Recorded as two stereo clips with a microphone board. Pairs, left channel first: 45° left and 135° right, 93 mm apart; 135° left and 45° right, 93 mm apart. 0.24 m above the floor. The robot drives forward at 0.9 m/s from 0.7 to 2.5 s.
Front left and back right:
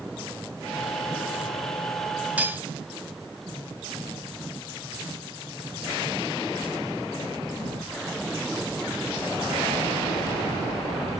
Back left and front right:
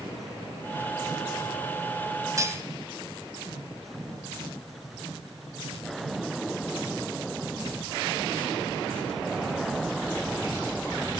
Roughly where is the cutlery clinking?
Right.